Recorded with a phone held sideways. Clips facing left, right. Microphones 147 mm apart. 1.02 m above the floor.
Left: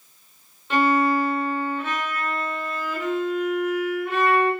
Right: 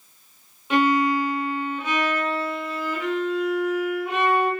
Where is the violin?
10° right (ahead or behind), 5.5 m.